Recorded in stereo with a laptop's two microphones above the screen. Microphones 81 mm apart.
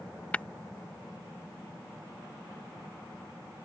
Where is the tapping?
15° left (ahead or behind).